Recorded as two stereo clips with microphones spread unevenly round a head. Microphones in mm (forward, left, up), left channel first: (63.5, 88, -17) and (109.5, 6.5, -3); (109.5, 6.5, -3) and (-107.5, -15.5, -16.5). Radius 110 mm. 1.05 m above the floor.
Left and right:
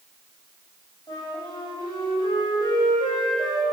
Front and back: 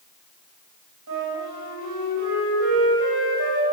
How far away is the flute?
About 2.5 m.